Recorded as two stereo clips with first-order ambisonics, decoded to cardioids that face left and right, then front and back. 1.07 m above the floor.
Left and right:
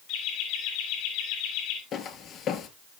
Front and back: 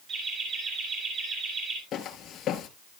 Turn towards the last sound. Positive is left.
turn(degrees=45)